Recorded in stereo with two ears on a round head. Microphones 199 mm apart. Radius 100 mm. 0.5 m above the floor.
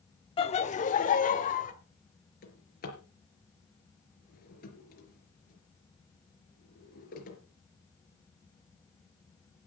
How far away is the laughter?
About 1.0 m.